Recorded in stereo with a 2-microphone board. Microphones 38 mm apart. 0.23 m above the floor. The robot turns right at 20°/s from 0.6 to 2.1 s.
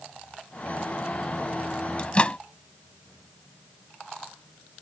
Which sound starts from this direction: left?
A microwave, at 2.0 s.